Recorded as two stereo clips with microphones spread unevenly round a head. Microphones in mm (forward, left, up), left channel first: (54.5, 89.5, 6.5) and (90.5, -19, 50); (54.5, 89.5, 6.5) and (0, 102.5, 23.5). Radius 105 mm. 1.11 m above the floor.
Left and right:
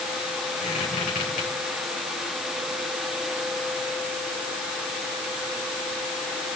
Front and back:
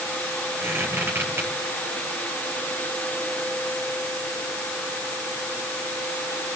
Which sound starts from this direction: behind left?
A squeak, at 0.6 s.